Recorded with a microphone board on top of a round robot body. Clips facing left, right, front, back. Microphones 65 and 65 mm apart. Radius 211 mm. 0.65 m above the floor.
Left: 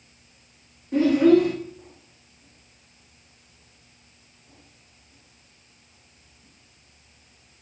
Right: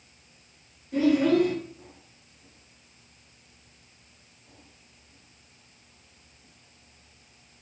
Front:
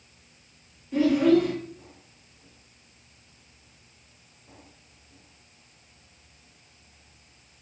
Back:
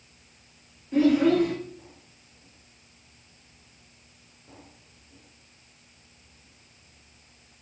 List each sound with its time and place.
0.9 s a child speaking: 105° left, 0.9 m